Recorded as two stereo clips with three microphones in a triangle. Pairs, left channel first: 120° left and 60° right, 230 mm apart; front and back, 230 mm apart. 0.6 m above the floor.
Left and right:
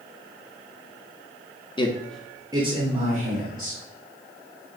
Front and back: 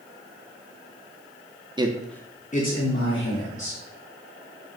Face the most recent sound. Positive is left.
turn(degrees=-15)